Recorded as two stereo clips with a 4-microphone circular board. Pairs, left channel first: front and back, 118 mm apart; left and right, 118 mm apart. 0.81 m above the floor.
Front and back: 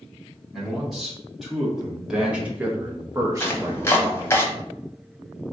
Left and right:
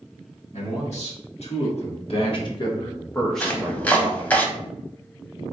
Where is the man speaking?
90° left, 1.7 m; by 4.4 s 125° right, 0.8 m.